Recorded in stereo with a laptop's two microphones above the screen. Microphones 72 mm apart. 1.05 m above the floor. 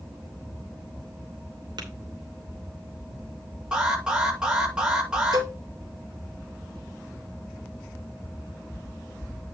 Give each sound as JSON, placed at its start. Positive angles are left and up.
{"t": 1.8, "sound": "tapping", "side_deg": -85, "distance_m": 2.5}
{"t": 3.7, "sound": "an alarm", "side_deg": -10, "distance_m": 6.0}
{"t": 5.3, "sound": "a cowbell", "side_deg": -65, "distance_m": 2.5}